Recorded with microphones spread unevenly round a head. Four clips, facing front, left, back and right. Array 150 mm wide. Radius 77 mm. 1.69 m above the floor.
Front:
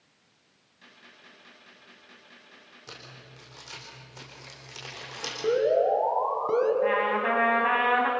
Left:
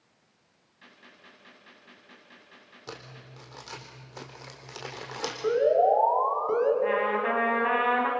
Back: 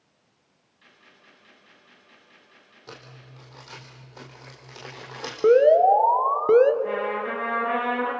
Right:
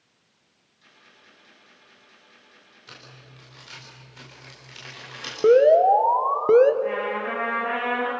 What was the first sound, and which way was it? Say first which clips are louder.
A gunshot: left 3 dB, front 2 dB; 65° left.